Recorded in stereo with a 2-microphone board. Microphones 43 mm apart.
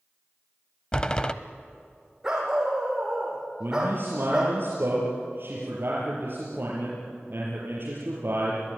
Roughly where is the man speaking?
Right.